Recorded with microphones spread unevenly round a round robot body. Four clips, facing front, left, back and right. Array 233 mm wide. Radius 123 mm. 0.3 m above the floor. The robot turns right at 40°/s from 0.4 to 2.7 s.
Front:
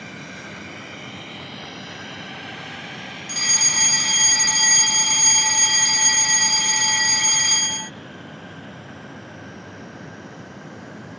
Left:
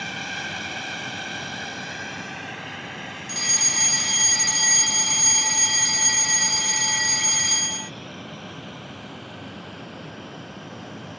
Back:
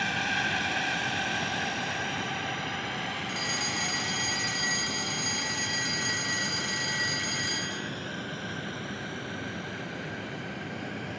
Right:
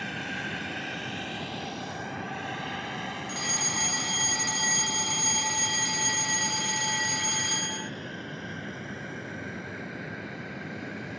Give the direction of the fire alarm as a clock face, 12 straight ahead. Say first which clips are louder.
Left 1 dB, front 2 dB; 11 o'clock.